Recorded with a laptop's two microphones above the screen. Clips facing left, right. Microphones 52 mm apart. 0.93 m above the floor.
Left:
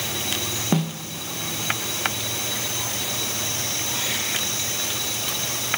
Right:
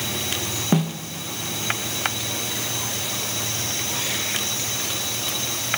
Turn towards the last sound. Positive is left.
turn(degrees=0)  # may be behind; listen again after turning